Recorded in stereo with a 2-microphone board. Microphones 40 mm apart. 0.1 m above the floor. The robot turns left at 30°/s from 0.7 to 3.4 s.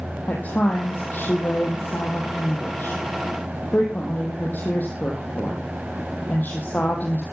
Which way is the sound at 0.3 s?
135° left.